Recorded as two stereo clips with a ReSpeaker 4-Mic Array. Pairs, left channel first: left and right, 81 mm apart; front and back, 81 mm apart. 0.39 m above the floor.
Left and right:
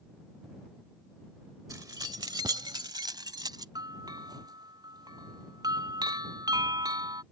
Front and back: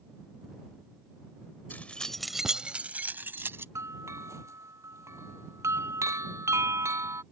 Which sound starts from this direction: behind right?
A bell, at 3.8 s.